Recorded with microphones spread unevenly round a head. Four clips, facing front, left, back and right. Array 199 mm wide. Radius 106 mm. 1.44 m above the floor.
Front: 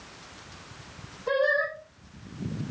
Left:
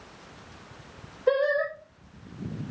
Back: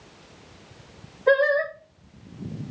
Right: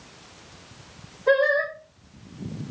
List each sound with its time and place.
1.3 s singing: 170° right, 4 m